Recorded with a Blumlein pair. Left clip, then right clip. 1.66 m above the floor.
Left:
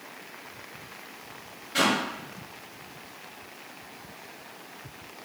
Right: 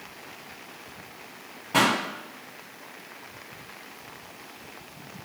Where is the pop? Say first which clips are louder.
Right 2 dB; 50° right, 1.4 m.